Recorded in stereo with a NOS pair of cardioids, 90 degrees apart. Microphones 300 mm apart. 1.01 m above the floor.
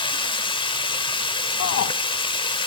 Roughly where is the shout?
Ahead left.